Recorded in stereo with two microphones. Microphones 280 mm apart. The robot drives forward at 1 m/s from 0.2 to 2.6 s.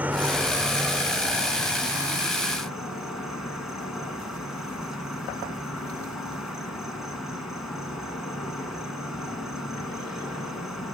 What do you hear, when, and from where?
0.0 s an insect: 5° right (ahead or behind), 0.8 m; by 10.9 s centre (ahead or behind), 3 m